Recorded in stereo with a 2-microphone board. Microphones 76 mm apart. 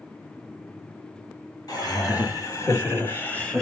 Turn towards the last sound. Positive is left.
turn(degrees=10)  # may be behind; listen again after turning